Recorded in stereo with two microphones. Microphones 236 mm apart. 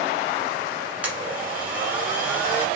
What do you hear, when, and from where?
1.0 s a blender: 5° right (ahead or behind), 1.2 m